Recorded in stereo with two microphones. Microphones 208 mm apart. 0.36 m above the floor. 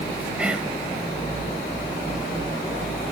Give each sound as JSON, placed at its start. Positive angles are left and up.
{"t": 0.4, "sound": "whispering", "side_deg": -5, "distance_m": 1.6}